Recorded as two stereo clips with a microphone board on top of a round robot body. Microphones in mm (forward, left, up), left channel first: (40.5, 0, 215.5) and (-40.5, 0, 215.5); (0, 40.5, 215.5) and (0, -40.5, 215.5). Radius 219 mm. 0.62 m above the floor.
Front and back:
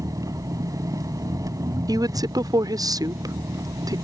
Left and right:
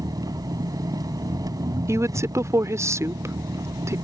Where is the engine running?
135° right.